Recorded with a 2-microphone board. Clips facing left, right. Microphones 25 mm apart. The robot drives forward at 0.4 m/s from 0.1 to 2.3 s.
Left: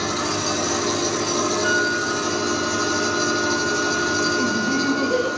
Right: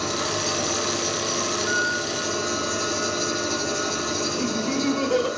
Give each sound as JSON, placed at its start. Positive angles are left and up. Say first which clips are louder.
{"t": 0.0, "sound": "an engine running", "louder": "left 2 dB", "side_deg": 75, "distance_m": 3.0}
{"t": 1.6, "sound": "a flute", "louder": "left 3 dB", "side_deg": 45, "distance_m": 0.9}
{"t": 4.4, "sound": "laughter", "louder": "left 4 dB", "side_deg": 0, "distance_m": 2.0}